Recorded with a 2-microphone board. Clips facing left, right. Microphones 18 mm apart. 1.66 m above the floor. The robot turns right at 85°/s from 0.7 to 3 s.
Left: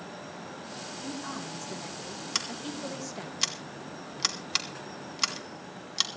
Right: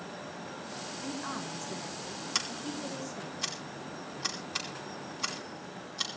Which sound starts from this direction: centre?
Scissors, at 2.4 s.